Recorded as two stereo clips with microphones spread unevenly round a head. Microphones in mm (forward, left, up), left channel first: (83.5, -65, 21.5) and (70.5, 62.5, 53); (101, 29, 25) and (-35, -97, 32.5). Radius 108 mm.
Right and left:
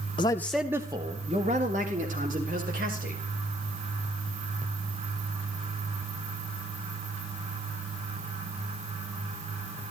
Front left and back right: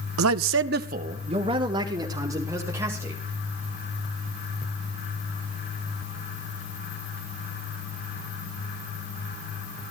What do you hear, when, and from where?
0.2 s a man speaking: 150° right, 0.7 m; by 3.2 s 140° left, 3.5 m